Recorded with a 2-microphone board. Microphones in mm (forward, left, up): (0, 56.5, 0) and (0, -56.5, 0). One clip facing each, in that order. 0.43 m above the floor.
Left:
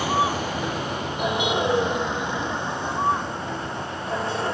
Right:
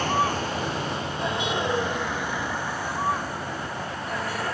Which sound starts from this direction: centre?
A vehicle, at 0.0 s.